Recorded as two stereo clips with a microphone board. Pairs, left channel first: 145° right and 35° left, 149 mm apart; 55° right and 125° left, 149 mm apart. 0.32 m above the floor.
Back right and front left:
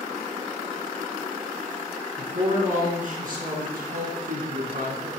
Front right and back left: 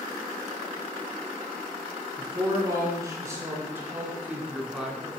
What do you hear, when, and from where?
2.2 s a woman speaking: 65° left, 5 m; by 5.1 s 35° left, 3.5 m